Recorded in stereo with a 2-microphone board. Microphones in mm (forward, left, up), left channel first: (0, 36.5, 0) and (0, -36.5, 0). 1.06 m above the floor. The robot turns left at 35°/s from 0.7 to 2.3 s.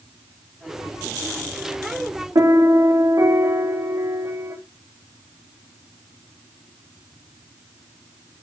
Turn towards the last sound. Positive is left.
turn(degrees=-55)  # may be behind; listen again after turning